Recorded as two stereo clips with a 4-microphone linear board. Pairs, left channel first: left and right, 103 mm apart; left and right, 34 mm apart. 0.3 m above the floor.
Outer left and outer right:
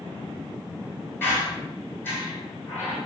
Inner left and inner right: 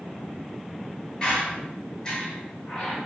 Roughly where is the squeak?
Left.